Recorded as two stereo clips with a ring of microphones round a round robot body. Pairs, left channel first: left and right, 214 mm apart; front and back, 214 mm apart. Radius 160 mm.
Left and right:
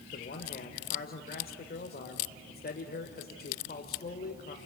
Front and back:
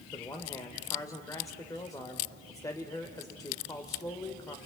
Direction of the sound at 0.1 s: 70° left.